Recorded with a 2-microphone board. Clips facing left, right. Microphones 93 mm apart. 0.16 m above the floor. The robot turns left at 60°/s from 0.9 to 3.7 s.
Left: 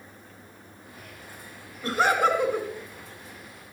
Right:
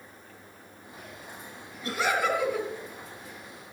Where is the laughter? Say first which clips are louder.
Left 5 dB; 25° left (ahead or behind), 1.7 m; by 2.7 s 30° left (ahead or behind), 1.7 m.